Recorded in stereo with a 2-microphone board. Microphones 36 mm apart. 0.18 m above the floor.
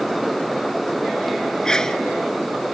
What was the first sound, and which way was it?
A sneeze, 15° left (ahead or behind).